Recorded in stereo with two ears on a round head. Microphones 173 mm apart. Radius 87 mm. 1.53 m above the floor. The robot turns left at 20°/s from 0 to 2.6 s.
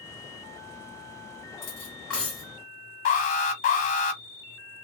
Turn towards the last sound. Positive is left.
turn(degrees=40)  # may be behind; listen again after turning